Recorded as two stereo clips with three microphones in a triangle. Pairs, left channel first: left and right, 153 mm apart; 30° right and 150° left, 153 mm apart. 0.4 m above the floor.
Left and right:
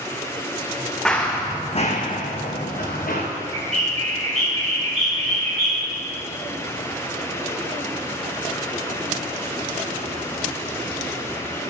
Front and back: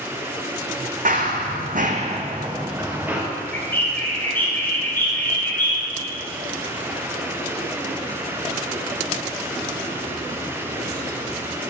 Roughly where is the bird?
Right.